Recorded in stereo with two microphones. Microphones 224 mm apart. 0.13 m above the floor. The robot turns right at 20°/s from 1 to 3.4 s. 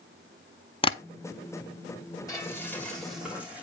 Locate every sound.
0.8 s tapping: 25° left (ahead or behind), 0.5 m
2.3 s frying: 15° left (ahead or behind), 7.5 m; by 3.6 s 5° right (ahead or behind), 7.5 m